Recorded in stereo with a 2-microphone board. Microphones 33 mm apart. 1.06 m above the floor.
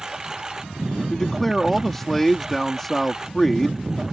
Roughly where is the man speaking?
Centre.